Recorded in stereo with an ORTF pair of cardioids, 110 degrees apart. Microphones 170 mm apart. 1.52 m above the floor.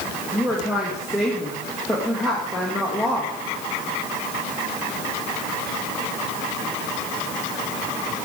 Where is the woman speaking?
5° right, 1.9 m.